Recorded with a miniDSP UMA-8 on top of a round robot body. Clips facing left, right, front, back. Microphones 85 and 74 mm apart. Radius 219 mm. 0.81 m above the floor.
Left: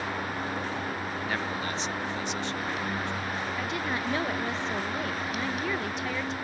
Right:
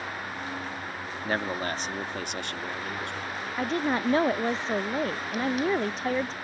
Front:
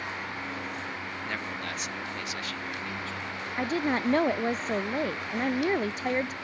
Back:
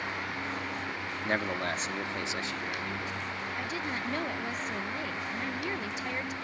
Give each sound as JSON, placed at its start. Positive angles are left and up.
{"t": 1.2, "sound": "a man speaking", "azimuth_deg": -135}
{"t": 3.6, "sound": "a woman speaking", "azimuth_deg": -40}